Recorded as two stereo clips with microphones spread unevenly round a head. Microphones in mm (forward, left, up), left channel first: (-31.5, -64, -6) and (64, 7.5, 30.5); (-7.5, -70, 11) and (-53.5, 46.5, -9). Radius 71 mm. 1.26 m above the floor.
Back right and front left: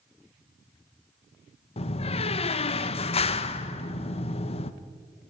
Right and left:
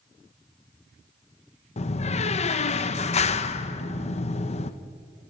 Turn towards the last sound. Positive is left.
turn(degrees=-105)